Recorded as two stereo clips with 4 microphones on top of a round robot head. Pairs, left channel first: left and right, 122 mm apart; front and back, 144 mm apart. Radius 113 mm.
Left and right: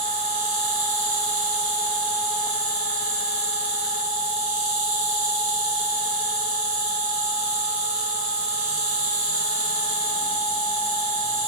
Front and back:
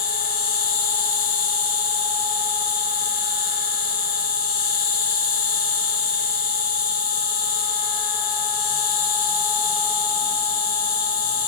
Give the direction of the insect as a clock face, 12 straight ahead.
11 o'clock.